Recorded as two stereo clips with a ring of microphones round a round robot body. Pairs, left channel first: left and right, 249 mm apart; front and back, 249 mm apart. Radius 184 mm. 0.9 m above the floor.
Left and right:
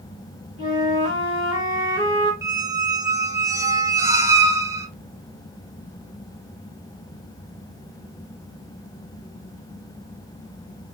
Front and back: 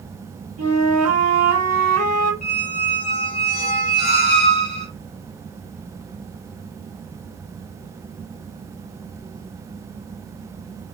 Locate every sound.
0.6 s a flute: 165° right, 1.9 m
2.4 s a squeak: 20° right, 0.8 m